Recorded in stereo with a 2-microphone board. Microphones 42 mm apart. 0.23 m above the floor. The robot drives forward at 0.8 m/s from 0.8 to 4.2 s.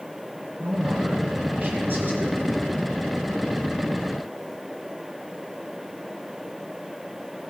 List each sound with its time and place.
0.6 s a man speaking: 65° right (ahead or behind), 3.5 m; by 2.4 s 50° right (ahead or behind), 4 m